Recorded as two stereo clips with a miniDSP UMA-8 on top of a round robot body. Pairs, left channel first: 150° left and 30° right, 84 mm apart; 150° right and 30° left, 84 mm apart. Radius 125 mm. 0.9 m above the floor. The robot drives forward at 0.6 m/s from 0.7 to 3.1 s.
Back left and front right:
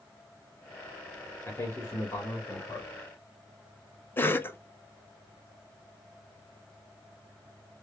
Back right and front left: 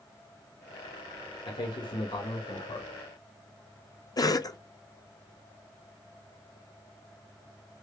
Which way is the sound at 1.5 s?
155° right.